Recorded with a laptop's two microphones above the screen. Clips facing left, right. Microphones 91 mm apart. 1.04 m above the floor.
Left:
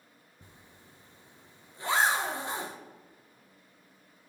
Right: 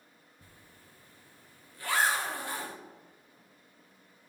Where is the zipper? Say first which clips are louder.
Left 2 dB; 20° left (ahead or behind), 0.5 m.